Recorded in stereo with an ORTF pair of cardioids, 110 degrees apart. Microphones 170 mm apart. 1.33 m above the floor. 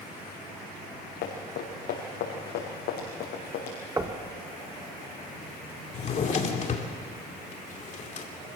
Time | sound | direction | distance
1.2 | running footsteps | 70° left | 5.5 m
4.0 | knocking | 15° right | 1.5 m
5.9 | a drawer | 45° left | 2.5 m